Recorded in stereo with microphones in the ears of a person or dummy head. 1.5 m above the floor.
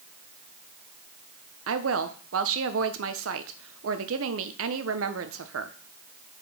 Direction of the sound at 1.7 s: 85° right.